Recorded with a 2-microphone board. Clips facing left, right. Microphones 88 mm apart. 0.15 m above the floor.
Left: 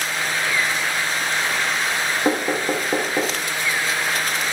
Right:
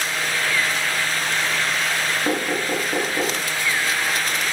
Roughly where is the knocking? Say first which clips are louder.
Left 4 dB; left.